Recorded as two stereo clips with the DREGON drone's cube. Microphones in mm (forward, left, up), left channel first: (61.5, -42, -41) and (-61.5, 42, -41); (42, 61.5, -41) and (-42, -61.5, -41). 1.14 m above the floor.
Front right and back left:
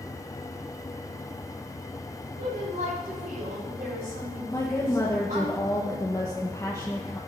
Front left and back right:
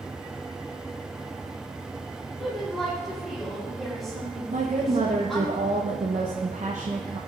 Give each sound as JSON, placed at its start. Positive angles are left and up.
{"t": 2.4, "sound": "a woman speaking", "azimuth_deg": 145, "distance_m": 3.5}
{"t": 4.5, "sound": "a woman speaking", "azimuth_deg": -100, "distance_m": 0.9}